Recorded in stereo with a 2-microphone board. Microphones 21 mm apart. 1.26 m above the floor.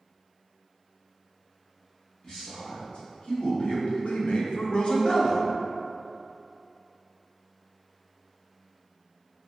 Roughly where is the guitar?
No guitar in this recording.